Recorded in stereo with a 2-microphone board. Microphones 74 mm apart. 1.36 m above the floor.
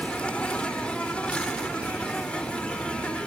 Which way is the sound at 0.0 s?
15° left (ahead or behind).